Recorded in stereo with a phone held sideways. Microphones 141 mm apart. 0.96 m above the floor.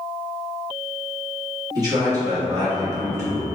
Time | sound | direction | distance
1.8 | a man speaking | 25° right (ahead or behind) | 1.7 m